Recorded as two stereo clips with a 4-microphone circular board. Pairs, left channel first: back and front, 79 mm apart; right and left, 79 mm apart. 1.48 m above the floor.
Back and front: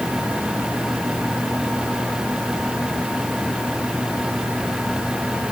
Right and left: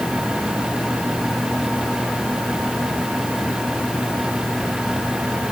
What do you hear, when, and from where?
Only background noise.